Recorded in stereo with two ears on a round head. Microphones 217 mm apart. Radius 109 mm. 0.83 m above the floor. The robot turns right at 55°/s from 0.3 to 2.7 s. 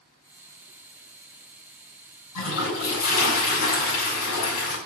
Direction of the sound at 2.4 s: 85° left.